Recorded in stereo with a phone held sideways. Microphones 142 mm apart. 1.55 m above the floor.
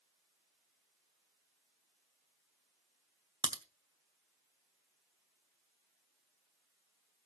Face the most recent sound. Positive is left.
turn(degrees=-30)  # may be behind; listen again after turning